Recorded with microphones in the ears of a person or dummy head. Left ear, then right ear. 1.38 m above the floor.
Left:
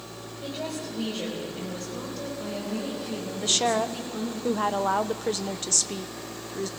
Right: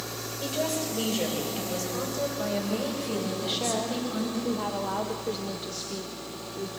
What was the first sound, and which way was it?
A woman speaking, 60° right (ahead or behind).